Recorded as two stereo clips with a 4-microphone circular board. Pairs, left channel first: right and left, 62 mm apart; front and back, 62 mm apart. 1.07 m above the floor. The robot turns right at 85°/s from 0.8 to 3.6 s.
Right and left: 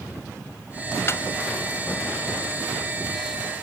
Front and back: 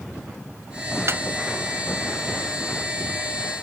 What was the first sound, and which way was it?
A snare drum, 140° right.